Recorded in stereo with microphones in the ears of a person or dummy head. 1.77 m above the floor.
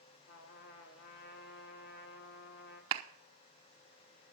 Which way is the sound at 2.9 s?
25° right (ahead or behind).